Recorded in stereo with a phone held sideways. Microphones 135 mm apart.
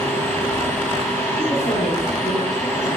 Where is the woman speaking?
60° left (ahead or behind), 6.5 m.